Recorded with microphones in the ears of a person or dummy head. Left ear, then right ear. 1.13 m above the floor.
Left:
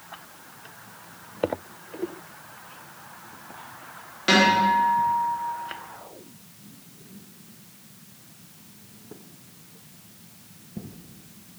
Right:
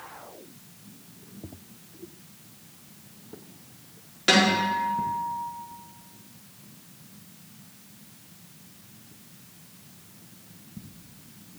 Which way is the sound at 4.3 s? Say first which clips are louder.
Left 3 dB; 5° right (ahead or behind).